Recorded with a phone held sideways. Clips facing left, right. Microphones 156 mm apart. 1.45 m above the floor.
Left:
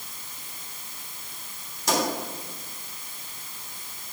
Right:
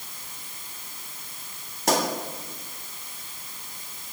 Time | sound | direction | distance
1.9 | a pop | 65° right (ahead or behind) | 3 m